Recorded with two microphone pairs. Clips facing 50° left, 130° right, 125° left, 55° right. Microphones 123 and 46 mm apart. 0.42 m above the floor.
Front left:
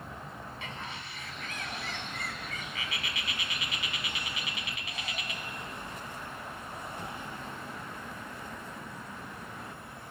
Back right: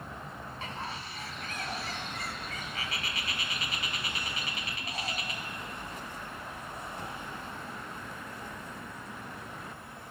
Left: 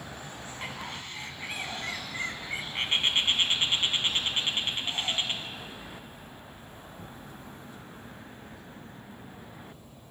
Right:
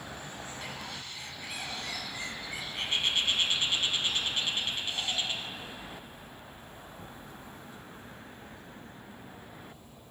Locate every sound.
0.6 s a bird: 175° left, 1.1 m